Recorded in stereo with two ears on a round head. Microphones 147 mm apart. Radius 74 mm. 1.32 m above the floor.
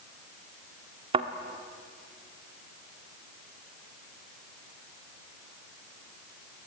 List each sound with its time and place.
1.1 s a thud: 35° right (ahead or behind), 1.4 m